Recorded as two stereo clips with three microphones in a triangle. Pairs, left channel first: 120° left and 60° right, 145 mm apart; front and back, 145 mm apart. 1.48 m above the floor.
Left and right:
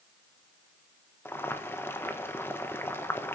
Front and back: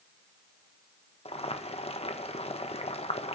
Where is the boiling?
45° left, 1.3 m.